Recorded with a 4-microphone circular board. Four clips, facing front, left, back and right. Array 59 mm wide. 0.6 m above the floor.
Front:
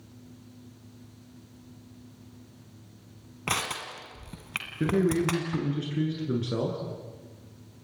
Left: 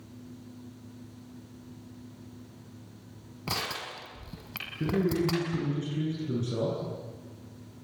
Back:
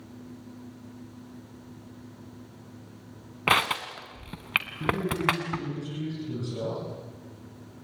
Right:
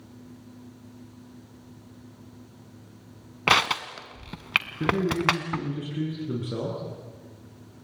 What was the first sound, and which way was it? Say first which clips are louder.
Crushing: right 13 dB, back 7 dB; 120° right.